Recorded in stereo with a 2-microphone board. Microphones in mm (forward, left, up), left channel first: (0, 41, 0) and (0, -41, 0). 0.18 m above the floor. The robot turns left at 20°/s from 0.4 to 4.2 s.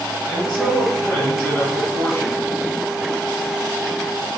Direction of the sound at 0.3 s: 160° left.